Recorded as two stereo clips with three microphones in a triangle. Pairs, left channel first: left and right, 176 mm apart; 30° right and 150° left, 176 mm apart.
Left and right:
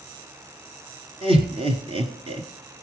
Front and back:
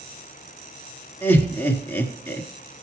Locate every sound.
1.2 s laughter: 95° right, 1.4 m